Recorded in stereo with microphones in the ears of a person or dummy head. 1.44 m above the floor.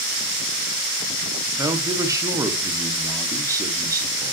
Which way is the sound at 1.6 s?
10° right (ahead or behind).